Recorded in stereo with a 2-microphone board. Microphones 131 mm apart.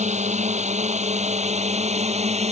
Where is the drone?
65° right (ahead or behind); by 2.5 s 55° right (ahead or behind).